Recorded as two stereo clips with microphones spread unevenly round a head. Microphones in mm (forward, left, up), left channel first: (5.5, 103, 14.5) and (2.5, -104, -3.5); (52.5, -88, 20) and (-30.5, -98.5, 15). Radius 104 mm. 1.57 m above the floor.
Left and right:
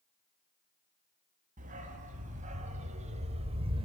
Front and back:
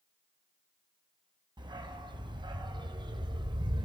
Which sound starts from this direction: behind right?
A dog barking, at 1.6 s.